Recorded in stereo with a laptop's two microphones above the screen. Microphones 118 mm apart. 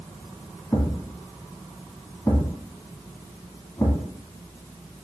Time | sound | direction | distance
0.7 | a thud | 25° left (ahead or behind) | 1.6 m